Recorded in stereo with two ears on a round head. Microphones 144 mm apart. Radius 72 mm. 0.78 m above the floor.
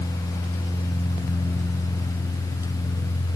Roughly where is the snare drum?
I don't hear a snare drum.